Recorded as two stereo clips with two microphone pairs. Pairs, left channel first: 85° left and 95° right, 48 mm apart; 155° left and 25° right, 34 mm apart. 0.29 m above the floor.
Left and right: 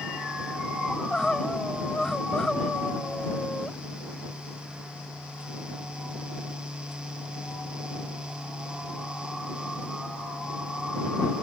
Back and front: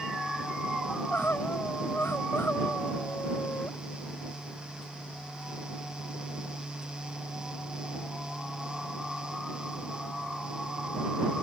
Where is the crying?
165° left.